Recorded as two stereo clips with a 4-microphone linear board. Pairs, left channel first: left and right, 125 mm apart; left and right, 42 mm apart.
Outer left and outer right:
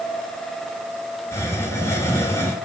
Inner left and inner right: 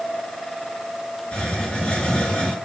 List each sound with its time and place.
1.3 s a hiss: 20° left (ahead or behind), 1.5 m